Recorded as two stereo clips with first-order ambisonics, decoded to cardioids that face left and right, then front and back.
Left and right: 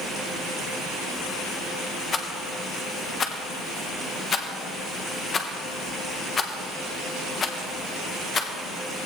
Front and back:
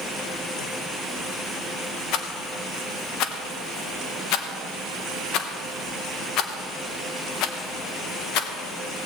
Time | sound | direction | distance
2.1 | a rattle | 25° left | 0.9 m